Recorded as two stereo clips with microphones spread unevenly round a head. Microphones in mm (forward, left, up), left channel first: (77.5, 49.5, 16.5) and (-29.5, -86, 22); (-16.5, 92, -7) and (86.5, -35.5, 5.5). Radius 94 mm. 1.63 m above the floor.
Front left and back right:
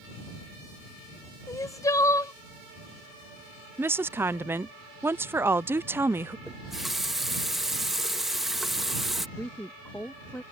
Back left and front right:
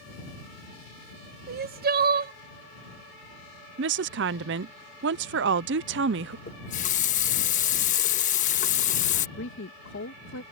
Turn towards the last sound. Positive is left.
turn(degrees=135)